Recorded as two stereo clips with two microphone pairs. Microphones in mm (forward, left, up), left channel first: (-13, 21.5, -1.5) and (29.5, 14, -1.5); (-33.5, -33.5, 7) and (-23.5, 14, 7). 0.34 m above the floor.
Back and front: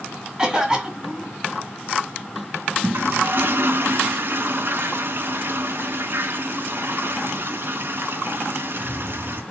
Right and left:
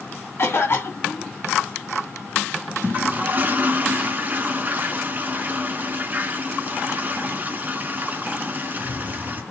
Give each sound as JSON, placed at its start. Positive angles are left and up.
{"t": 0.4, "sound": "a cough", "azimuth_deg": -85, "distance_m": 2.0}
{"t": 2.8, "sound": "a toilet flushing", "azimuth_deg": 25, "distance_m": 0.7}